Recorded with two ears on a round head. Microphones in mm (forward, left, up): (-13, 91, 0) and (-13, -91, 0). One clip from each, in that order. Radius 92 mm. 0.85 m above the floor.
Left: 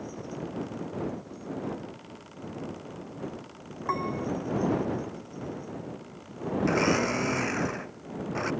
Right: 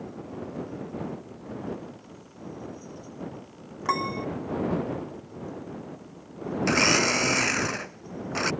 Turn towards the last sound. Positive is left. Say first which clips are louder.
# right 4 dB
turn(degrees=-75)  # may be behind; listen again after turning